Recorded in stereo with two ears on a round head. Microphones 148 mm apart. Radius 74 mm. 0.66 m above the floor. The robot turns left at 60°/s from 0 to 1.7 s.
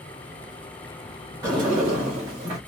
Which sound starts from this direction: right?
A sliding door, at 1.4 s.